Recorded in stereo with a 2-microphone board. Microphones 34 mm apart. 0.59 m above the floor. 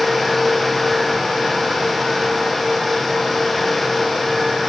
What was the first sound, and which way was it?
Only background noise.